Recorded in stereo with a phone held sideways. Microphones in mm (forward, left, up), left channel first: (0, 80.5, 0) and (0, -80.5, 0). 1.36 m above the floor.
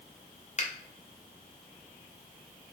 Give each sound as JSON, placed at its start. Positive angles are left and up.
{"t": 0.6, "sound": "a finger snap", "side_deg": 45, "distance_m": 0.6}